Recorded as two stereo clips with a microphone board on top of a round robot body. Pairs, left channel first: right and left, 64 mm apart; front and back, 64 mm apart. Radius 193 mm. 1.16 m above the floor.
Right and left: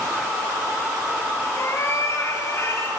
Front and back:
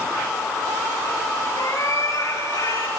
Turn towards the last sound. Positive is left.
turn(degrees=-40)